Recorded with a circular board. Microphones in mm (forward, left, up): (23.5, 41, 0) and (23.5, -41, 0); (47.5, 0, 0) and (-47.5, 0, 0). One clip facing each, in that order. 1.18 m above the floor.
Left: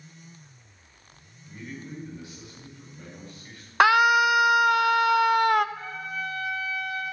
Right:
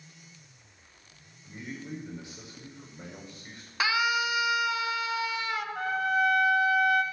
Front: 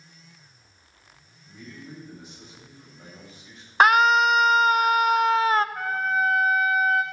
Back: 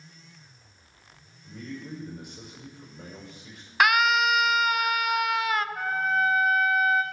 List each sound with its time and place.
1.4 s a man speaking: 155° right, 5.5 m
3.8 s a scream: 55° left, 0.6 m
5.8 s a trumpet: 90° right, 1.3 m